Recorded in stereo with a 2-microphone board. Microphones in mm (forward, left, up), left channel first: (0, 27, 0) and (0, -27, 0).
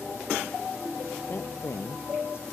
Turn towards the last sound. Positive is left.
turn(degrees=45)  # may be behind; listen again after turning